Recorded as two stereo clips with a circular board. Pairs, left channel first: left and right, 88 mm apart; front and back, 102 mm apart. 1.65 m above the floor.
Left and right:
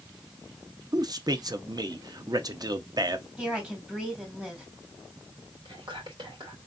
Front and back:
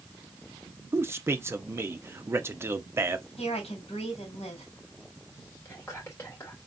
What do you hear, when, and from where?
0.9 s a man speaking: 115° right, 0.5 m
3.4 s a woman speaking: 10° right, 2 m
5.7 s whispering: 65° right, 2.5 m